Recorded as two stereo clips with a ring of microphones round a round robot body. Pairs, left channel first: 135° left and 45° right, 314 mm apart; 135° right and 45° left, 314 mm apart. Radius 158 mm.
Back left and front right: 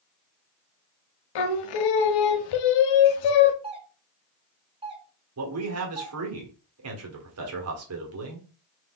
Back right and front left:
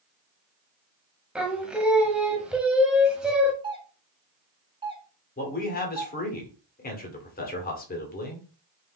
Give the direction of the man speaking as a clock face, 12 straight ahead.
3 o'clock.